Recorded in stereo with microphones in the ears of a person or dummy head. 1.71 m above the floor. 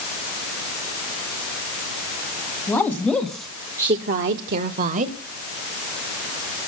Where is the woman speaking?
15° left (ahead or behind), 2 m; by 5.2 s 45° right (ahead or behind), 1.6 m.